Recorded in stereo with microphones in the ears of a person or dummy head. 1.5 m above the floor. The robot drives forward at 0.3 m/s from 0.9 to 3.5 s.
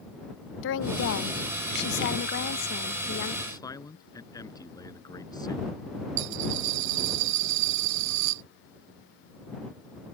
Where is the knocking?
No knocking in this recording.